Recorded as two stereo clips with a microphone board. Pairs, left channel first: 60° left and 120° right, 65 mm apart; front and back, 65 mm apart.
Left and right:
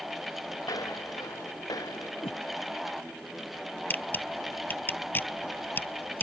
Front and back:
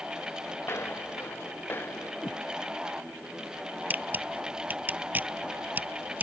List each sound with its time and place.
0.6 s footsteps: 50° left; by 2.1 s 55° left
2.2 s a whoosh: 65° left
3.9 s a camera shutter: 120° left